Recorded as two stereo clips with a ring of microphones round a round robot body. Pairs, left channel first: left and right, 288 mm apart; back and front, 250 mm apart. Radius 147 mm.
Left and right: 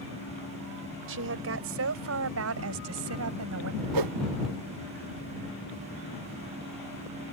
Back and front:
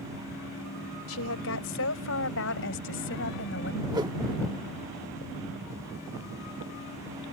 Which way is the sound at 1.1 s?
135° right.